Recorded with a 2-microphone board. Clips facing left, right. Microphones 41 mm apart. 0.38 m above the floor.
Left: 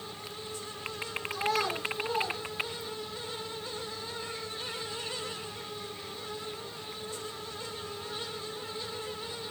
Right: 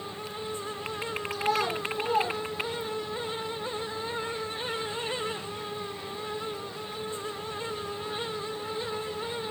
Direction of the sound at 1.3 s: 10° left (ahead or behind).